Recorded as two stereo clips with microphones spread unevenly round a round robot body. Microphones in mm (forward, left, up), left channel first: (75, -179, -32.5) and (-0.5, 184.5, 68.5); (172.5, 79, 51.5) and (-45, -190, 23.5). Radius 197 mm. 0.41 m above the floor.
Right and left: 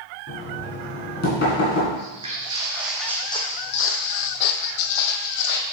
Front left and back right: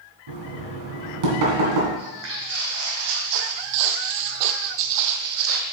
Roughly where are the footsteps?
Behind.